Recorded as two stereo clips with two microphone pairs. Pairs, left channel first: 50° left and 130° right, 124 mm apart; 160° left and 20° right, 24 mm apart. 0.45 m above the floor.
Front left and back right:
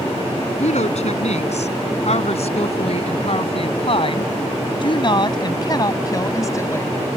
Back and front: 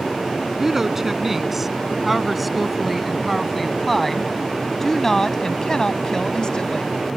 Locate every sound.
0.6 s a woman speaking: 60° left; by 6.9 s 115° left